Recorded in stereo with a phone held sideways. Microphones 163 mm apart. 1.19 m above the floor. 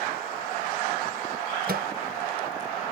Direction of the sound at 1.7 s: 70° right (ahead or behind).